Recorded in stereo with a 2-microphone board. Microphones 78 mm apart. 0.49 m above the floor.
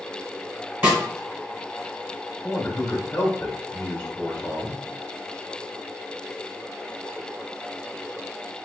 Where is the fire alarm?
No fire alarm in this recording.